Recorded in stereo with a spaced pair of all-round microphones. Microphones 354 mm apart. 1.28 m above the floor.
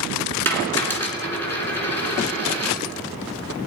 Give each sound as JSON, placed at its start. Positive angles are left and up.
{"t": 0.5, "sound": "a dropped coin", "side_deg": 5, "distance_m": 2.5}